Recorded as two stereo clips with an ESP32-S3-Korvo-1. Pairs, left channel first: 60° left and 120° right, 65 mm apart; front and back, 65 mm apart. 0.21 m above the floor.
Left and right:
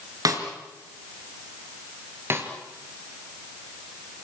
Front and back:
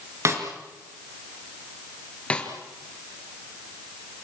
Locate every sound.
0.2 s a snare drum: 140° right, 4 m
2.3 s a snare drum: 70° right, 4 m